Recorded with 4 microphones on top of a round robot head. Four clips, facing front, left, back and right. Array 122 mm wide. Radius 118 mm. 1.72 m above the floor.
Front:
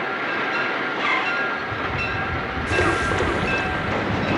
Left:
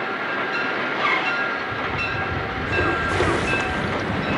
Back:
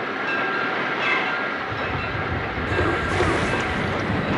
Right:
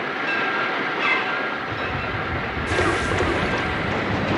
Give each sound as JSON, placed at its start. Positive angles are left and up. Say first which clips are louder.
{"t": 0.9, "sound": "a zipper", "louder": "left 1 dB, even", "azimuth_deg": 75, "distance_m": 4.5}